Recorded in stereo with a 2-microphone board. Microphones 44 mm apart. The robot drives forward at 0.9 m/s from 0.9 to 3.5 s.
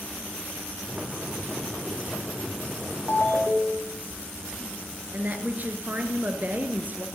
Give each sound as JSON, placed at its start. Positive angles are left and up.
{"t": 3.1, "sound": "a ringtone", "side_deg": 60, "distance_m": 2.5}
{"t": 5.1, "sound": "a woman speaking", "side_deg": -40, "distance_m": 1.6}